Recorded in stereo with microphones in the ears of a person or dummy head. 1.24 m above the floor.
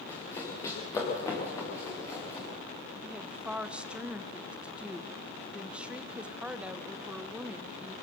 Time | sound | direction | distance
0.1 | running footsteps | 15° left (ahead or behind) | 7.5 m
3.0 | a woman speaking | centre (ahead or behind) | 0.9 m